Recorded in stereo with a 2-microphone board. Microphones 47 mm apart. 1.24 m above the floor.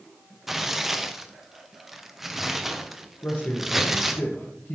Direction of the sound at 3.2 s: 65° left (ahead or behind).